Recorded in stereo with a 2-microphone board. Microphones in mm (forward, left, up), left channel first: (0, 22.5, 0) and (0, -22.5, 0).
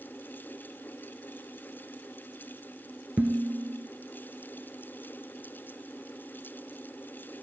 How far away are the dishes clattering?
About 2 m.